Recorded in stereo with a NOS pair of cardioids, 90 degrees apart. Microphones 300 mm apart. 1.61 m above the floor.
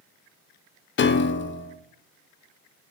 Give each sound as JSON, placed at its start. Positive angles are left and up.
{"t": 1.0, "sound": "a piano", "azimuth_deg": 35, "distance_m": 0.6}